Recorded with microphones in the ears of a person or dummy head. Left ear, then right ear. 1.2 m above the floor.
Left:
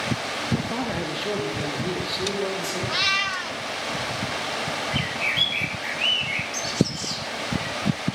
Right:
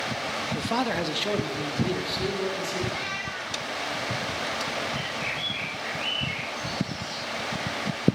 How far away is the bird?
About 2.5 m.